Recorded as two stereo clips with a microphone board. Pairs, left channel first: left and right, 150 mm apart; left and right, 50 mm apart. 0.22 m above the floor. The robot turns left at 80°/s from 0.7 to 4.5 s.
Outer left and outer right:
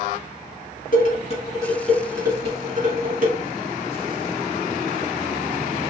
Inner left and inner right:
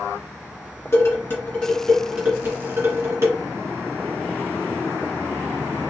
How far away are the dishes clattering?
About 1.6 m.